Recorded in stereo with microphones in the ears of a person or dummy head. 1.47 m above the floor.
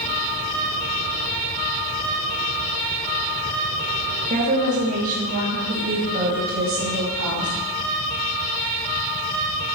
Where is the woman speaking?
40° right (ahead or behind), 1.9 m; by 7.5 s 45° right (ahead or behind), 3.5 m.